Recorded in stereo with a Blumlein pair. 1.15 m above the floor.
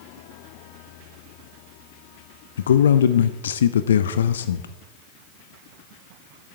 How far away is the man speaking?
About 0.5 m.